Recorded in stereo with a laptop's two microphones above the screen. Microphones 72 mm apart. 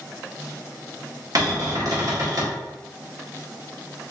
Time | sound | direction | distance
1.4 | a cupboard door | 55° right (ahead or behind) | 0.7 m